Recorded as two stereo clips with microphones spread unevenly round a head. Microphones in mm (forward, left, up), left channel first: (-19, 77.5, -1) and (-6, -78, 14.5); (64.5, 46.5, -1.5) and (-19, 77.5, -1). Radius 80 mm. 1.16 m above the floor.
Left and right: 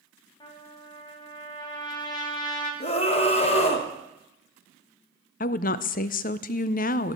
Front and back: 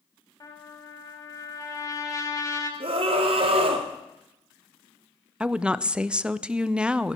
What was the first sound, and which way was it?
A trumpet, 30° left.